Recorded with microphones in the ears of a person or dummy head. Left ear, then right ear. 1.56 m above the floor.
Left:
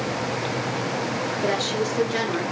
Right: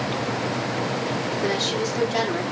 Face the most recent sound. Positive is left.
turn(degrees=25)  # may be behind; listen again after turning